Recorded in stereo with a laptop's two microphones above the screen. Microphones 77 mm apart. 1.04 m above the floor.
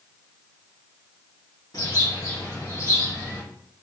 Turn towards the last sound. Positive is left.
turn(degrees=55)  # may be behind; listen again after turning